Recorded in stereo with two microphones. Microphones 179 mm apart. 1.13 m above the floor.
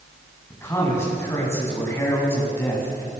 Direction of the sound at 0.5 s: 15° left (ahead or behind).